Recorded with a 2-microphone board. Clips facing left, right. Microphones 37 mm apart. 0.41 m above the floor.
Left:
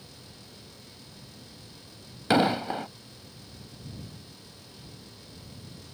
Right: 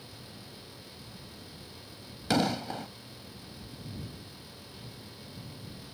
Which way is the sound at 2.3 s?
25° left (ahead or behind).